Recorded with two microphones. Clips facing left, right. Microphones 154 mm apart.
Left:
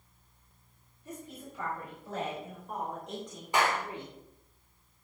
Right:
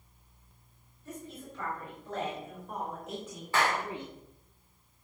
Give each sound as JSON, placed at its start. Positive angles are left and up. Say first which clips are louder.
{"t": 1.1, "sound": "a woman speaking", "louder": "right 1 dB", "side_deg": 15, "distance_m": 5.0}
{"t": 3.5, "sound": "a clap", "louder": "left 1 dB", "side_deg": 15, "distance_m": 2.5}